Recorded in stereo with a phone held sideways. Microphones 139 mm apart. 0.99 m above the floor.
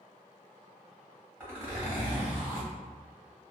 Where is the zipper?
20° right (ahead or behind), 1.7 m.